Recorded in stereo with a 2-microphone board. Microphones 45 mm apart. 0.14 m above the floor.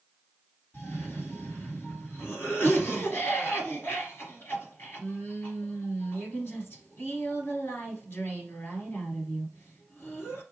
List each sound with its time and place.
0.7 s a cough: 55° left (ahead or behind), 1.9 m